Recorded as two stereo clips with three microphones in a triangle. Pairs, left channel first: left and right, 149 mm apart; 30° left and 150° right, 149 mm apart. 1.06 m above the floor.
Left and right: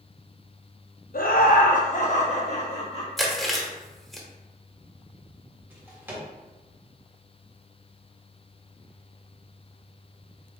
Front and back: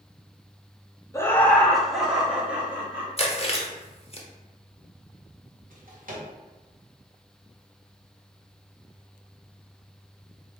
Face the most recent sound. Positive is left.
turn(degrees=-165)